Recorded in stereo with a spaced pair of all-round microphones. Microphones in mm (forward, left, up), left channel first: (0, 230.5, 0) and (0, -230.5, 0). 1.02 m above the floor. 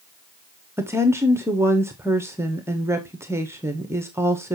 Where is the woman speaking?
5° right (ahead or behind), 0.7 m.